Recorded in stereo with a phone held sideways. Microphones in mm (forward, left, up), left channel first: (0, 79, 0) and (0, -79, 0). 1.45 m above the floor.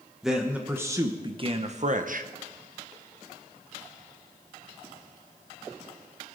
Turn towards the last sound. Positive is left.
turn(degrees=-65)  # may be behind; listen again after turning